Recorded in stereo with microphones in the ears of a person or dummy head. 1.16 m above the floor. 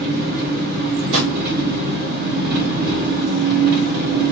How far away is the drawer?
About 1.9 m.